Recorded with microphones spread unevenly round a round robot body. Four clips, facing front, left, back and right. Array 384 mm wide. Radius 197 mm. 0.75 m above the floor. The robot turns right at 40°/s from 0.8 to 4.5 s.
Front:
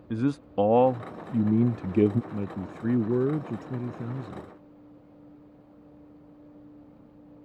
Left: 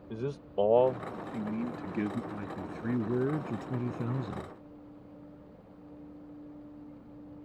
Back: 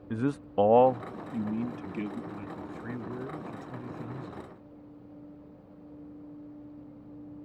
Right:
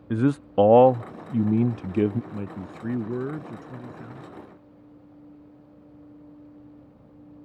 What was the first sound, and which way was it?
A man speaking, 85° right.